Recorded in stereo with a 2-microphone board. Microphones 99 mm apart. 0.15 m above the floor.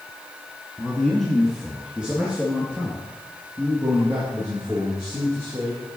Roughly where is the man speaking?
Centre.